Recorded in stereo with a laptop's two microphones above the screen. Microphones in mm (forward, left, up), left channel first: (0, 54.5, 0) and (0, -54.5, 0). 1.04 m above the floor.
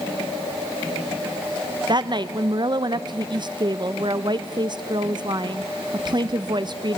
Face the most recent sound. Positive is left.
turn(degrees=-45)  # may be behind; listen again after turning